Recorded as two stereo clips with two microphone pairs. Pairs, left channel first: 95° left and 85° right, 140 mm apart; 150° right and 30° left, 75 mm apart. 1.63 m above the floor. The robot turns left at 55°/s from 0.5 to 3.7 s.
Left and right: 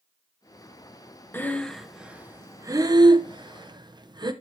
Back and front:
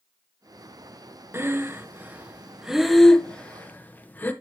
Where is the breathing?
25° left, 0.8 m; by 4.3 s 100° right, 0.8 m.